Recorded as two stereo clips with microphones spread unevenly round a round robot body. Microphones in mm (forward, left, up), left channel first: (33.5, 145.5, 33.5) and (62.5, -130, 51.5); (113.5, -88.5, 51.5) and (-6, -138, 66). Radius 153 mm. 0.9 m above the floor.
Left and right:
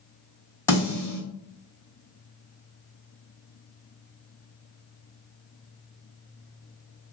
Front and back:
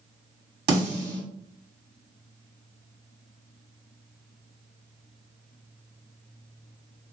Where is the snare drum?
170° left, 1.4 m.